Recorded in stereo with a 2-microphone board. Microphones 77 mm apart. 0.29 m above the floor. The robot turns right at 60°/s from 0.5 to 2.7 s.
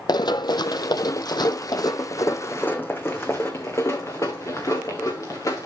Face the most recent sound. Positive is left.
turn(degrees=45)  # may be behind; listen again after turning